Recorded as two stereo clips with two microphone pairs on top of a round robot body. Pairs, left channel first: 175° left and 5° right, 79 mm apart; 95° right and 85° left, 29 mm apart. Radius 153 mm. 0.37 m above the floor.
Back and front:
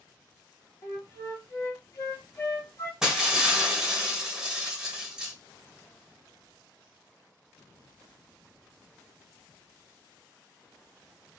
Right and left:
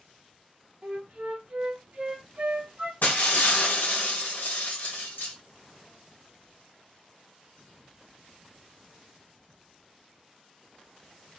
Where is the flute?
130° left, 2.5 m.